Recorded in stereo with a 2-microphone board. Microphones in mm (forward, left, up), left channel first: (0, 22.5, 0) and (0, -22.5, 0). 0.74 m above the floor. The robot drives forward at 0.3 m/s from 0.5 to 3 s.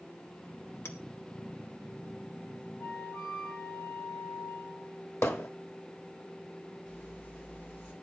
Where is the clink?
70° left (ahead or behind), 2 m; by 1.0 s 65° left (ahead or behind), 2 m.